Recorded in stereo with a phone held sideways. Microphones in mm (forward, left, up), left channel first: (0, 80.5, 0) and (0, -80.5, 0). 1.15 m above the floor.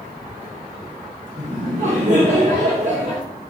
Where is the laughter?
50° right (ahead or behind), 1.8 m.